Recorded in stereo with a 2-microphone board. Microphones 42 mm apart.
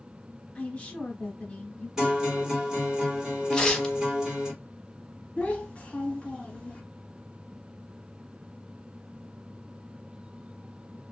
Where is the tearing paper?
20° left (ahead or behind), 0.8 m.